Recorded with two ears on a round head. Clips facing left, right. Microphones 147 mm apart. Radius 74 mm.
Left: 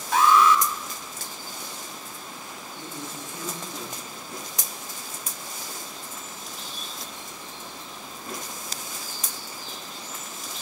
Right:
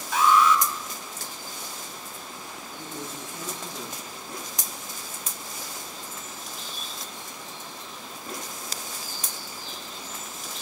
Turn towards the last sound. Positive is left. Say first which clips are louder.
# right 1 dB
turn(degrees=-10)  # may be behind; listen again after turning